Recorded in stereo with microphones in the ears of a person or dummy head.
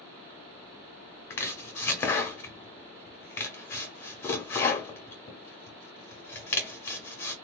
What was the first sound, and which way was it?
Chopping, 10° left (ahead or behind).